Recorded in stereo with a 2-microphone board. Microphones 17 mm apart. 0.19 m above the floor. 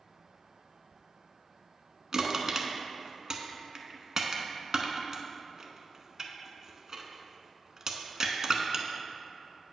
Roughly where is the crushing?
Right.